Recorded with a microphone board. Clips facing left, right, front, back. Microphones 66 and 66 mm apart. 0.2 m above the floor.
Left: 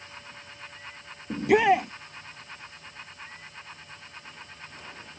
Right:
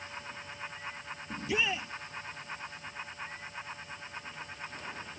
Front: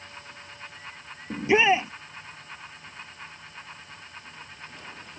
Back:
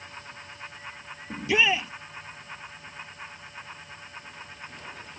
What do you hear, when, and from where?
1.3 s a shout: 65° left